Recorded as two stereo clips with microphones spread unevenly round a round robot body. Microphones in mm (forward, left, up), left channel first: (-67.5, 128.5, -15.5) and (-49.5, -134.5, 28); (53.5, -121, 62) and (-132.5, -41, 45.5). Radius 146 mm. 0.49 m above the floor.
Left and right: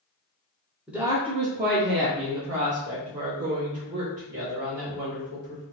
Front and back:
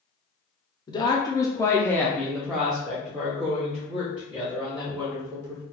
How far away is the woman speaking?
About 0.7 m.